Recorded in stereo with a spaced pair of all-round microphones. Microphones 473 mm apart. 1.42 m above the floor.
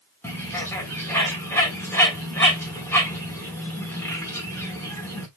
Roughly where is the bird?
Centre.